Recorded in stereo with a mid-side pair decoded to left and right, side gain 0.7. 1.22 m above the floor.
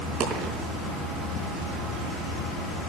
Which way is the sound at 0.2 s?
55° right.